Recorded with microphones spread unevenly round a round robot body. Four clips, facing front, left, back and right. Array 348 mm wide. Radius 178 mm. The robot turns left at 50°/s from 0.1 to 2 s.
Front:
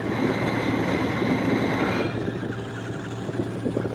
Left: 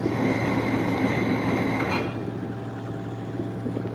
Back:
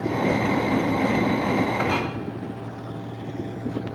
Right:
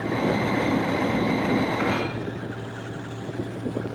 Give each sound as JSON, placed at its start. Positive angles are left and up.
{"t": 1.8, "sound": "a clink", "azimuth_deg": -165, "distance_m": 4.5}